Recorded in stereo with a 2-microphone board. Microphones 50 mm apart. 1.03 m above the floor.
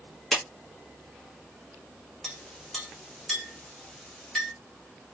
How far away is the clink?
About 1.3 m.